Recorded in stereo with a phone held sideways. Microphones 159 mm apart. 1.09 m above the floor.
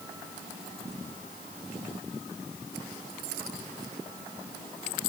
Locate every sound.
Only background noise.